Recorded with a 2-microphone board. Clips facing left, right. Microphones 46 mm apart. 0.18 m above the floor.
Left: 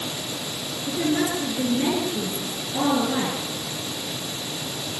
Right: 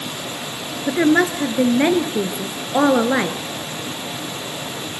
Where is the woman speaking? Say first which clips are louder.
Right 8 dB; 60° right (ahead or behind), 3 m.